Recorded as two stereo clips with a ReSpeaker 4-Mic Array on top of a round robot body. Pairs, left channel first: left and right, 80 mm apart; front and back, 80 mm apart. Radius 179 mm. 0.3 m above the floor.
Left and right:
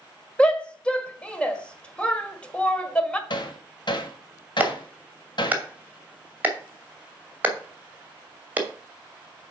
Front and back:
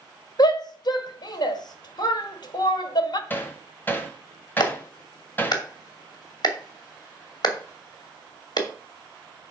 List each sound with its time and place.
0.4 s a shout: 15° left, 1.8 m
3.3 s hammering: 65° left, 1.6 m
4.6 s a clap: 20° right, 2.5 m